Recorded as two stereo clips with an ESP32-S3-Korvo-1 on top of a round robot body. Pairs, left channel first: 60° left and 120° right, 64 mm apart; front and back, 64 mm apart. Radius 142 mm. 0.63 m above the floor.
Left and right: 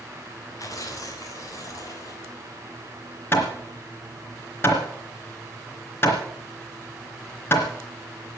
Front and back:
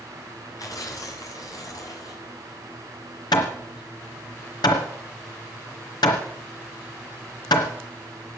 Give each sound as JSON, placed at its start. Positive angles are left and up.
{"t": 0.6, "sound": "tearing paper", "azimuth_deg": 25, "distance_m": 4.0}
{"t": 3.3, "sound": "hammering", "azimuth_deg": 0, "distance_m": 3.0}